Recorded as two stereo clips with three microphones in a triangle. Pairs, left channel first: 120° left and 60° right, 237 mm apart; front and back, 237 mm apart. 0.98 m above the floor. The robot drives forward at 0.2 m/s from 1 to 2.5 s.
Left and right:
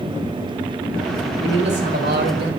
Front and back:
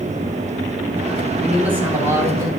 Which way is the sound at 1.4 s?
95° right.